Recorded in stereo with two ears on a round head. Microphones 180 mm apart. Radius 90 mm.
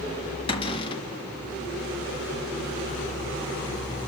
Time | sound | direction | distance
0.5 | a cupboard door | 25° left (ahead or behind) | 1.5 m